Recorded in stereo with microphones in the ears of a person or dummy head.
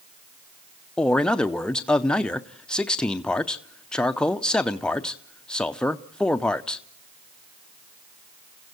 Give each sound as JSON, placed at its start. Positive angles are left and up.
{"t": 1.0, "sound": "a man speaking", "side_deg": 0, "distance_m": 0.6}